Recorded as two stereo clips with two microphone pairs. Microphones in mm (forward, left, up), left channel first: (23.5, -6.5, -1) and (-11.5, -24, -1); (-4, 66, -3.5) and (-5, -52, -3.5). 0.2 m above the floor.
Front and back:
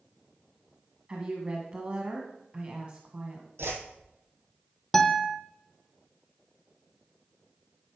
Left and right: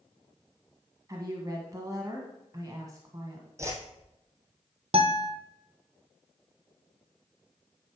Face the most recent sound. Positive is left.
turn(degrees=-55)